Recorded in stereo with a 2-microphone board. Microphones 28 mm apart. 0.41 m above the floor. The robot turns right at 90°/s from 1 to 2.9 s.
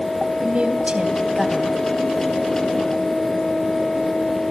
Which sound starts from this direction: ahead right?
A woman speaking, at 0.4 s.